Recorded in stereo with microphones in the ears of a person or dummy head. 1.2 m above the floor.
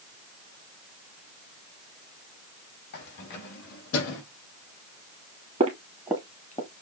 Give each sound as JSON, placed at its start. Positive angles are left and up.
{"t": 2.9, "sound": "keys jangling", "side_deg": 55, "distance_m": 2.5}
{"t": 5.6, "sound": "footsteps", "side_deg": -30, "distance_m": 1.7}